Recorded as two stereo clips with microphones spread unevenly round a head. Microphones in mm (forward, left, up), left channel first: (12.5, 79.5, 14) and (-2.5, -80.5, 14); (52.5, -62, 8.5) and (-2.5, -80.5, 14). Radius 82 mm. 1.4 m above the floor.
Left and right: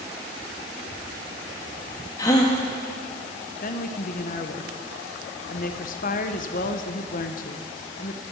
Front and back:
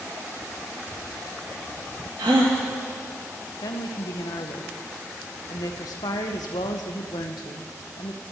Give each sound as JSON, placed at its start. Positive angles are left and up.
{"t": 2.2, "sound": "a gasp", "azimuth_deg": 155, "distance_m": 1.8}
{"t": 3.6, "sound": "a woman speaking", "azimuth_deg": 45, "distance_m": 0.9}